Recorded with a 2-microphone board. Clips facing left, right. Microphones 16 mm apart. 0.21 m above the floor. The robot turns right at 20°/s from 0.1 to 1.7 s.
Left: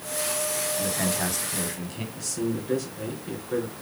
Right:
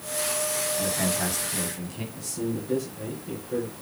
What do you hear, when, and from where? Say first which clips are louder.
0.8 s a man speaking: even; 5° left (ahead or behind), 1.5 m; by 2.0 s 15° left (ahead or behind), 1.5 m
2.1 s a man speaking: left 2 dB; 45° left (ahead or behind), 3 m